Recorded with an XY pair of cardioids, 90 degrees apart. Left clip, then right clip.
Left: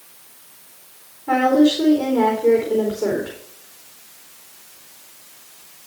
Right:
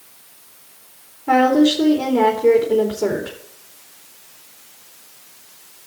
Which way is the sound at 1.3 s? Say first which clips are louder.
Right 1 dB; 35° right.